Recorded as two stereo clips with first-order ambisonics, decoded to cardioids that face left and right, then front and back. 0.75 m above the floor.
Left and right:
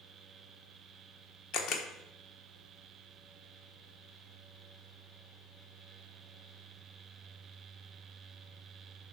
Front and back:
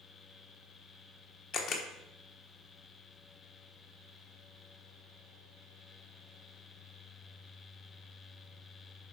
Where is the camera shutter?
50° left, 1.1 m.